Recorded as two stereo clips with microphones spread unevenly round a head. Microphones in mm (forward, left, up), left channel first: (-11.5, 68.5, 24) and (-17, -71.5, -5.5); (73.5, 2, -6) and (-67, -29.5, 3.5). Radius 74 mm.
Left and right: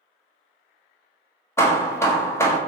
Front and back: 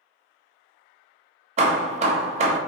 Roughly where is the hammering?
Behind left.